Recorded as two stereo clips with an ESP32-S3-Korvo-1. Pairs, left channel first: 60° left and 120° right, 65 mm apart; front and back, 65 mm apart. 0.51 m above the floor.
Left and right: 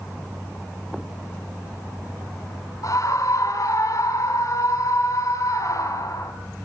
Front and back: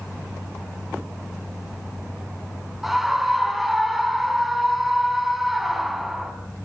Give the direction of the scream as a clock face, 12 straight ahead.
9 o'clock.